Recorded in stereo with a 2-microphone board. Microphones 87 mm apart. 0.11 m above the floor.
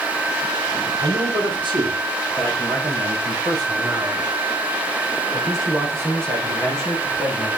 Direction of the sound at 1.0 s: 70° right (ahead or behind).